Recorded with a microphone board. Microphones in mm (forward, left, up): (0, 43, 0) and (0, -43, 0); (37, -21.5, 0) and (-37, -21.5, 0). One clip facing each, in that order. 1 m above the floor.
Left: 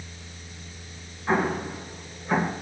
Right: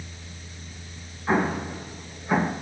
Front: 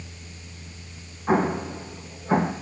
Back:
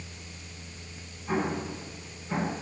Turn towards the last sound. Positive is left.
turn(degrees=-5)